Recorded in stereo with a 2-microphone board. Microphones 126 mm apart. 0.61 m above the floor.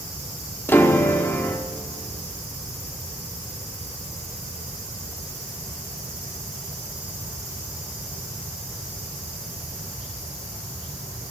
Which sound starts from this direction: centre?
A piano, at 0.7 s.